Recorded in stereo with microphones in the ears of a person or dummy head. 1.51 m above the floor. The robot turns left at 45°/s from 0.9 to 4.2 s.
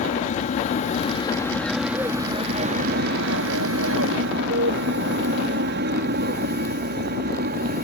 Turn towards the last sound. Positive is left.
turn(degrees=-50)  # may be behind; listen again after turning